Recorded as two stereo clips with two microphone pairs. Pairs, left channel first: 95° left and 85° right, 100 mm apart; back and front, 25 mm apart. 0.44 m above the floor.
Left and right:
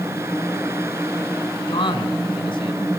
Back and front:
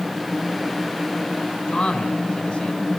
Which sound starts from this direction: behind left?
A man speaking, at 1.7 s.